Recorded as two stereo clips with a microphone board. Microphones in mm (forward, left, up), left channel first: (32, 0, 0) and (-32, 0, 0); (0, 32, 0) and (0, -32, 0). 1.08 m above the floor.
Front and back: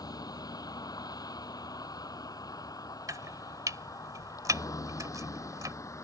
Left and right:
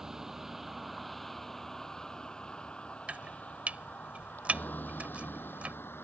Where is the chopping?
155° right.